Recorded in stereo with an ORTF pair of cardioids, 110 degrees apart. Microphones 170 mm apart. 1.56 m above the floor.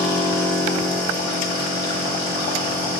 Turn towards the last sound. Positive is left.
turn(degrees=70)